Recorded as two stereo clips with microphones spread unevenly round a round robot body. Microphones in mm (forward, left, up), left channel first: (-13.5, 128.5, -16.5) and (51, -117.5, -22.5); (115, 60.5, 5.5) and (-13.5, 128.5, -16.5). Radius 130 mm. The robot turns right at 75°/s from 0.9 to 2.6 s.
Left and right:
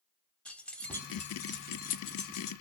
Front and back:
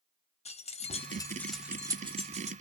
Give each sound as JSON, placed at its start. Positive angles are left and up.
{"t": 0.5, "sound": "keys jangling", "azimuth_deg": 20, "distance_m": 0.7}